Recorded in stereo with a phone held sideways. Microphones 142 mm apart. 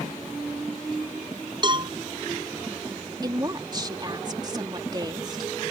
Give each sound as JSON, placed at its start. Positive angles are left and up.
{"t": 1.6, "sound": "a cowbell", "side_deg": -35}
{"t": 3.2, "sound": "a woman speaking", "side_deg": -30}